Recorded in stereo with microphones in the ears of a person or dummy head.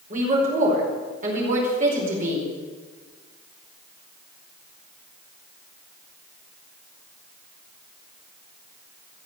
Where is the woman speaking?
50° right (ahead or behind), 4.5 m.